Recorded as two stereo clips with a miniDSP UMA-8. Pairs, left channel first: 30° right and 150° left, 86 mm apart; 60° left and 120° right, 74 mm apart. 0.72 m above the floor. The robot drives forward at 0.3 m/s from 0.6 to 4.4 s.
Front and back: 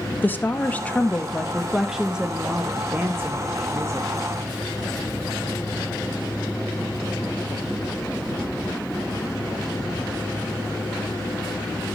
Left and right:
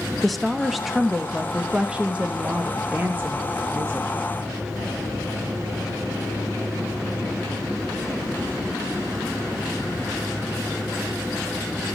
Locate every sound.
0.2 s a woman speaking: 30° right, 0.8 m; by 4.1 s 170° right, 1.1 m